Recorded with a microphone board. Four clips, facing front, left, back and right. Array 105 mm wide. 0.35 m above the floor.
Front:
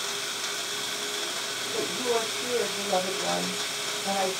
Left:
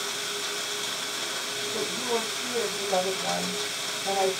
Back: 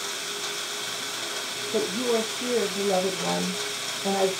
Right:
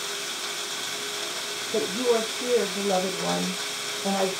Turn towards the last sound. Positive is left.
turn(degrees=-130)